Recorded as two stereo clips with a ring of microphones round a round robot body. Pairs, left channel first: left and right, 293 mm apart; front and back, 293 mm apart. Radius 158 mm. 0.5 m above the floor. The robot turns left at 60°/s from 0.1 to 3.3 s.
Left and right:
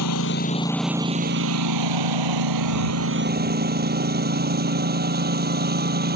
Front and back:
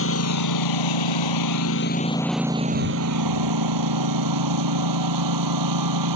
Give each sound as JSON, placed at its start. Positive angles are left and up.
{"t": 0.0, "sound": "a lawn mower", "azimuth_deg": 45}